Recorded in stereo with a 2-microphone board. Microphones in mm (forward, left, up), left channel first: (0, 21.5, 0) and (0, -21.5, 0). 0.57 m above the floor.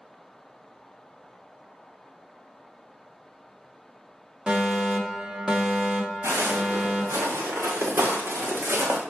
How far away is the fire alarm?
About 1.9 m.